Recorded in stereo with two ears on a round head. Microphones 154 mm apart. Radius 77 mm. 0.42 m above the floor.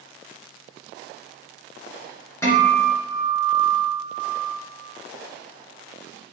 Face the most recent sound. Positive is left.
turn(degrees=15)  # may be behind; listen again after turning